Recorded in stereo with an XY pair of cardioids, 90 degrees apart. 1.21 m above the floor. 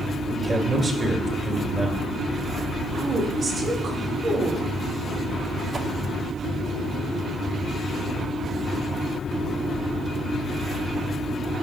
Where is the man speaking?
40° right, 2 m.